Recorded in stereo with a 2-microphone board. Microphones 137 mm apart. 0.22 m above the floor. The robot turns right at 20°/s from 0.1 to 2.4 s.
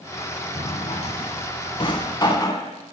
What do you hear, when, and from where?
0.6 s a drawer: 55° left (ahead or behind), 0.5 m; by 2.7 s 30° left (ahead or behind), 0.5 m